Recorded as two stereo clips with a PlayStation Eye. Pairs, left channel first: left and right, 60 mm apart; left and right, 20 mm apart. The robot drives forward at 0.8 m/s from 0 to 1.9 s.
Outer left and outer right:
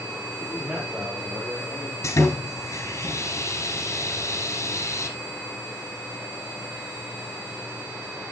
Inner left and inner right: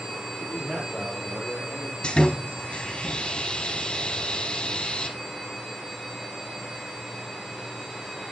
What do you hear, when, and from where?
0.4 s a man speaking: 5° left (ahead or behind), 3.5 m
2.0 s sawing: 60° left (ahead or behind), 1.8 m